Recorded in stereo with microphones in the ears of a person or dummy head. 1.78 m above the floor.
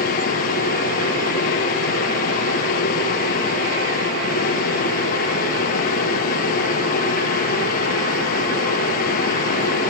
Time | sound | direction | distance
0.0 | a machine running | 50° left (ahead or behind) | 1.4 m